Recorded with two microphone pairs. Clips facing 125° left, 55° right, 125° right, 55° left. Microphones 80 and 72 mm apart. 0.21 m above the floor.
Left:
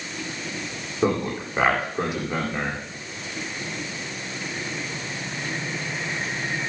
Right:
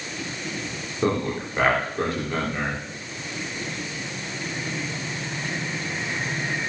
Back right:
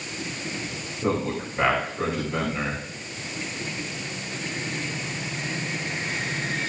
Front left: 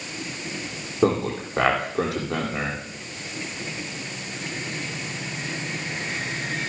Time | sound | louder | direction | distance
1.0 | a man speaking | left 1 dB, front left 4 dB | 45° left | 8.5 m